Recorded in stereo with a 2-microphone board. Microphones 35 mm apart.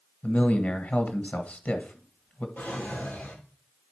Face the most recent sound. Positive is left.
turn(degrees=65)  # may be behind; listen again after turning